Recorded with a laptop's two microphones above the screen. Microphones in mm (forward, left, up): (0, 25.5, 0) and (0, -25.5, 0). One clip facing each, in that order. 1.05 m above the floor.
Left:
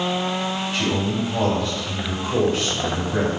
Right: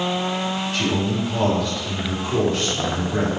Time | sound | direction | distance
0.7 | a man speaking | 10° left (ahead or behind) | 2.0 m